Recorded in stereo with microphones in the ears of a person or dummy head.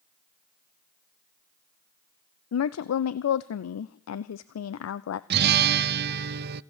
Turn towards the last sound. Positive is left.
turn(degrees=-55)  # may be behind; listen again after turning